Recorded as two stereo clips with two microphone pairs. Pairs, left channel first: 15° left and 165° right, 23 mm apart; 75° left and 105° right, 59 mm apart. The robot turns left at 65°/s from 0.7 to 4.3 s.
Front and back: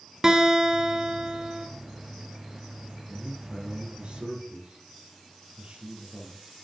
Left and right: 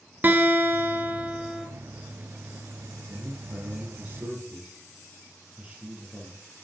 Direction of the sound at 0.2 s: 115° right.